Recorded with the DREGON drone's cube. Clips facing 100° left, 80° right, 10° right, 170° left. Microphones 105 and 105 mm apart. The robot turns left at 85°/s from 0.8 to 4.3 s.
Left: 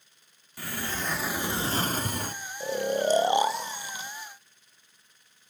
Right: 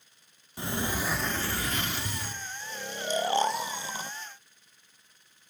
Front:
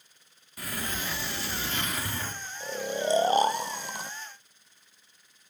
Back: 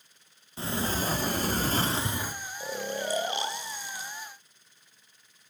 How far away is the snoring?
About 0.5 m.